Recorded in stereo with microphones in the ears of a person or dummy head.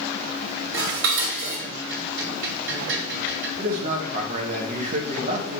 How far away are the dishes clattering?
About 1.8 m.